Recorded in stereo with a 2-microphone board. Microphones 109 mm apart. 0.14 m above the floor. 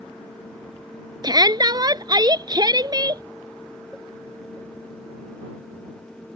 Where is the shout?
35° right (ahead or behind).